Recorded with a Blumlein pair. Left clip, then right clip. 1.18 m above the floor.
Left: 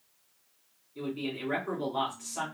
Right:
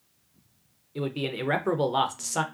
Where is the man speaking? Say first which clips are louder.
Right 5 dB; 40° right, 0.6 m.